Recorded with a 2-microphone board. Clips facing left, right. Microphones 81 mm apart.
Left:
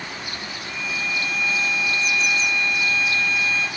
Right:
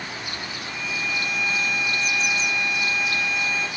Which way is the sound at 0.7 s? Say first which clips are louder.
Left 1 dB; 10° right (ahead or behind).